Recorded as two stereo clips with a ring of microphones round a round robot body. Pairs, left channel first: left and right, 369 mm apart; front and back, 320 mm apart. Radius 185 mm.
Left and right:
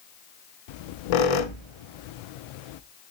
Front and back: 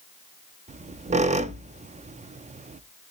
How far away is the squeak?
About 0.5 m.